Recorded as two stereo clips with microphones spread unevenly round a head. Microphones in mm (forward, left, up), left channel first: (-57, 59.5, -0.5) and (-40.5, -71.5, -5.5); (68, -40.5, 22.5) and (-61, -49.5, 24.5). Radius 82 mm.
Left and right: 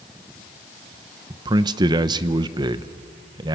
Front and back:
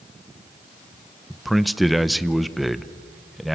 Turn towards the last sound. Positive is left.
turn(degrees=-85)